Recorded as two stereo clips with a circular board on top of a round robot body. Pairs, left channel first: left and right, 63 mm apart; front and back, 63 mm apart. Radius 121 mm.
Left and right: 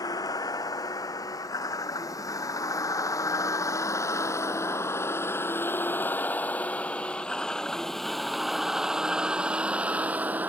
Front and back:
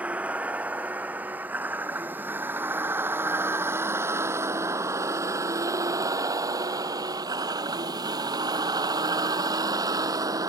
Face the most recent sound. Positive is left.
turn(degrees=-155)